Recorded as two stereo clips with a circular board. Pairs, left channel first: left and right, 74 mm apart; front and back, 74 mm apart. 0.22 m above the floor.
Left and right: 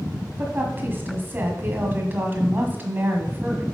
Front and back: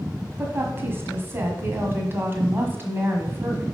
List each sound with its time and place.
0.4 s a woman speaking: 140° right, 1.4 m